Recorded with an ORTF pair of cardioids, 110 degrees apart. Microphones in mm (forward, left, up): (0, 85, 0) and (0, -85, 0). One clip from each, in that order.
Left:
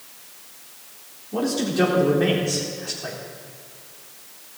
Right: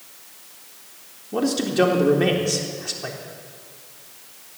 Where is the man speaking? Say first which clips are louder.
Right 2 dB; 25° right, 3.5 m.